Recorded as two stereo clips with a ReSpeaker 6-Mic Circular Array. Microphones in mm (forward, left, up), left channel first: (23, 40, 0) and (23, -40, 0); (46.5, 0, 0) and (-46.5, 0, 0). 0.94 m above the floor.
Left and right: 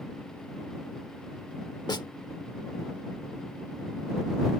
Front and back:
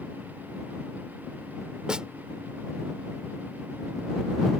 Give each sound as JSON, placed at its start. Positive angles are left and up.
{"t": 1.9, "sound": "a snare drum", "azimuth_deg": 100}